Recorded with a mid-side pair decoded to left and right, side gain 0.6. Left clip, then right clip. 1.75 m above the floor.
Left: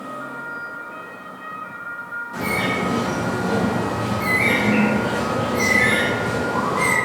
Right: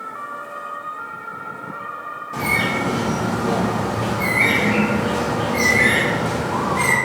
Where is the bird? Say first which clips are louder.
Right 3 dB; 45° right, 1.0 m.